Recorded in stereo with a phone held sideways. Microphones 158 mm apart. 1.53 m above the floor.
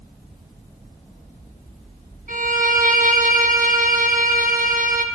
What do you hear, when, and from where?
2.3 s a violin: 60° right (ahead or behind), 1.2 m